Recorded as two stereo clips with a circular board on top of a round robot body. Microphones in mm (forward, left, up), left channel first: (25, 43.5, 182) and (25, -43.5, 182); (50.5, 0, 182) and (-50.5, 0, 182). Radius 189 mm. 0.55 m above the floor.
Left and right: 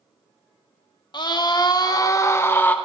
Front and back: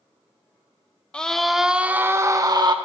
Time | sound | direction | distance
1.1 | a scream | 80° left | 2 m